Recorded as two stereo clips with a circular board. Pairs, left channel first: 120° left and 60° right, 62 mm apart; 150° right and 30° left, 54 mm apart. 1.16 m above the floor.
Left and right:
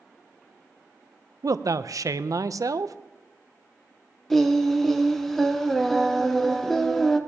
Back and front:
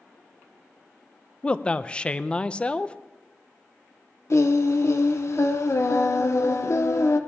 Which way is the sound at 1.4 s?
80° right.